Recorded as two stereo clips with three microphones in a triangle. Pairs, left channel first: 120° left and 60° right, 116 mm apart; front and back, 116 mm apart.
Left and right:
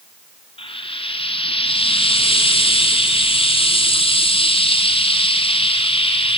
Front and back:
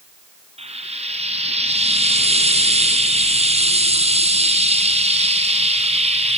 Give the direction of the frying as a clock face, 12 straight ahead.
7 o'clock.